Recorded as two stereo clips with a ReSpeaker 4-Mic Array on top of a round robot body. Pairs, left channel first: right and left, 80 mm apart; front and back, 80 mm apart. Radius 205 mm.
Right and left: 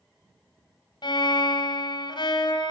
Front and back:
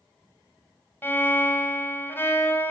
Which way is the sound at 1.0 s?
65° right.